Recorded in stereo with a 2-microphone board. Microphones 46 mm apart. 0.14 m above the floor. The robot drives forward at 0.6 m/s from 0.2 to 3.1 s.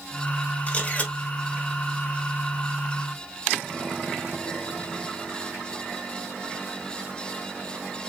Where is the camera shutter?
25° left (ahead or behind), 1.6 m; by 1.1 s 30° left (ahead or behind), 1.4 m.